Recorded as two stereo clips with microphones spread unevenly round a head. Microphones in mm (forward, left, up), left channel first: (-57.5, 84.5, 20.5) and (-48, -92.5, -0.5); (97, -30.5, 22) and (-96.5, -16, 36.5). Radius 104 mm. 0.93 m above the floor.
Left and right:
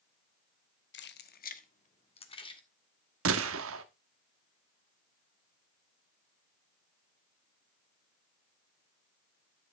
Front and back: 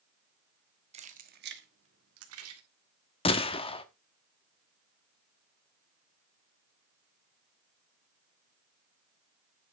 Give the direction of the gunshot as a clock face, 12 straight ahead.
2 o'clock.